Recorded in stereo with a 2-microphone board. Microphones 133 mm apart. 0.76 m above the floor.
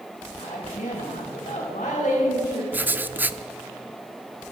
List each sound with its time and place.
0.4 s a woman speaking: 80° left, 4 m
2.7 s writing: 15° right (ahead or behind), 0.5 m